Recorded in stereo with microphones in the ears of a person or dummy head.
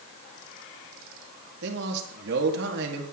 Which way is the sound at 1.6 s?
60° right (ahead or behind).